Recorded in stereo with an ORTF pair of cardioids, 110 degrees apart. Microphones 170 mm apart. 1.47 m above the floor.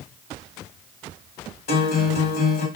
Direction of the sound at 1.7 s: 65° left.